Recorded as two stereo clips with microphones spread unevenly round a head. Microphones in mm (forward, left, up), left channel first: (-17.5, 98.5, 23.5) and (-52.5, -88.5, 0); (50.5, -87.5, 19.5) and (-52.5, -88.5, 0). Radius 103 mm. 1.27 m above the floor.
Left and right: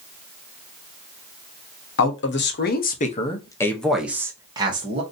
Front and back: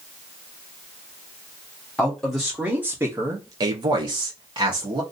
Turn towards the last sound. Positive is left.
turn(degrees=-155)